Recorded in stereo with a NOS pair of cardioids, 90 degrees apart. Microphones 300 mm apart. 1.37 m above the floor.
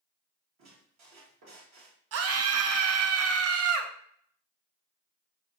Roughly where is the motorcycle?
I don't hear a motorcycle.